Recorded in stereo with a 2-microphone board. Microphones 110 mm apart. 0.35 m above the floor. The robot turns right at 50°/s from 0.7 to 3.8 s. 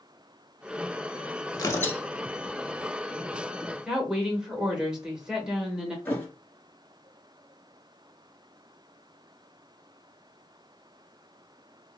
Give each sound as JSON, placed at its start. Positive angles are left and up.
{"t": 1.5, "sound": "tearing paper", "side_deg": 35, "distance_m": 0.7}
{"t": 3.8, "sound": "a woman speaking", "side_deg": -5, "distance_m": 0.9}
{"t": 6.0, "sound": "a thud", "side_deg": 20, "distance_m": 1.1}